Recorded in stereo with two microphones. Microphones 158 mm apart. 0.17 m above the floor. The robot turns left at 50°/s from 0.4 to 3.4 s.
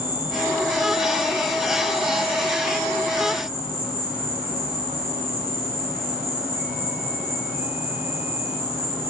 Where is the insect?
15° right, 2 m; by 9.1 s 165° right, 2 m.